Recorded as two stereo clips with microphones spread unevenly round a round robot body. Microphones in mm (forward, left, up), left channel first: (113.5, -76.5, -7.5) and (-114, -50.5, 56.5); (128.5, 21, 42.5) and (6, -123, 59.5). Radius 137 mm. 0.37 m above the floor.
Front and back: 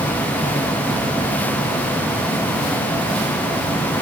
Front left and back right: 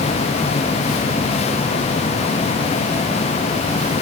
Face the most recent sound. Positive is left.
No sound to turn to.